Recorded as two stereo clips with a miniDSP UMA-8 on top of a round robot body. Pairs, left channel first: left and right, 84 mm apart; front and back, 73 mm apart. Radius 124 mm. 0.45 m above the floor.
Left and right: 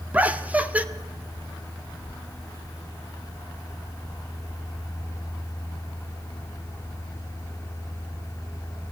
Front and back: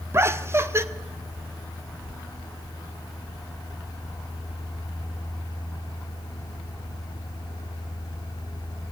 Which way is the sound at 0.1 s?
155° right.